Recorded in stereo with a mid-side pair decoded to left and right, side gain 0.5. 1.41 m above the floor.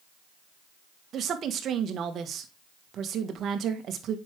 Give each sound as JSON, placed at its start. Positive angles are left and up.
{"t": 1.1, "sound": "a woman speaking", "azimuth_deg": -55, "distance_m": 1.8}